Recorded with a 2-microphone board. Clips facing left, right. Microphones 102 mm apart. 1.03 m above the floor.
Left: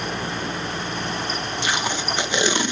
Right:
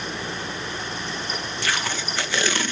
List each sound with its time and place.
1.6 s tape being pulled: 20° left (ahead or behind), 1.1 m